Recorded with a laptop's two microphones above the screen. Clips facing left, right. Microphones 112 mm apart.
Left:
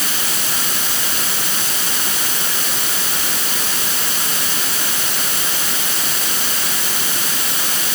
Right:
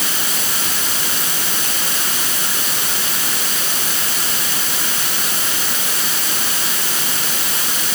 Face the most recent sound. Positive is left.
No sound to turn to.